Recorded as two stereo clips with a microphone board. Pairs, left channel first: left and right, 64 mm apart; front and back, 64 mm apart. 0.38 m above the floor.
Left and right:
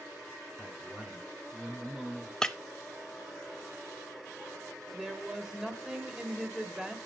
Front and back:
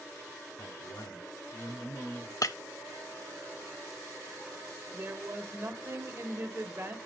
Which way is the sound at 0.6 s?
35° right.